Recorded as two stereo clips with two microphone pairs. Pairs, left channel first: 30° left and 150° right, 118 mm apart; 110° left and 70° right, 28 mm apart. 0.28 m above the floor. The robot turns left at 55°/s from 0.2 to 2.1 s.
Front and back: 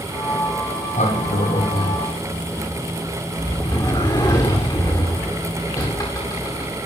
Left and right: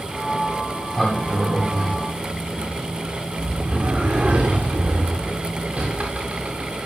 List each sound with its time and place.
0.8 s a sliding door: 40° left, 8 m; by 6.8 s 30° right, 8 m